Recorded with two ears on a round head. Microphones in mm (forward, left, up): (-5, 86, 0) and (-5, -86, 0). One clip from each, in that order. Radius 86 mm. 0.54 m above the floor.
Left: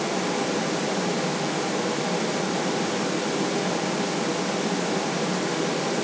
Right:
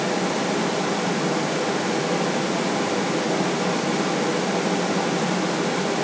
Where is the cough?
No cough in this recording.